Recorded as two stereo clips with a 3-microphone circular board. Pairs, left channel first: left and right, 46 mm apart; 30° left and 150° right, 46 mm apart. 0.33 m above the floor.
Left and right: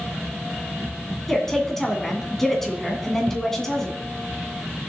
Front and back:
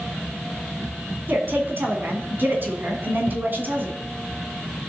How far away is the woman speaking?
About 2.5 m.